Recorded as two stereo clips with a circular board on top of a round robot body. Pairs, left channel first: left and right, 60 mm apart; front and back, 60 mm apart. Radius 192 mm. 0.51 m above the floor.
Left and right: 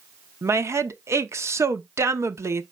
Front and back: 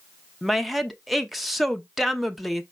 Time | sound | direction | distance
0.4 | a woman speaking | 90° right | 0.8 m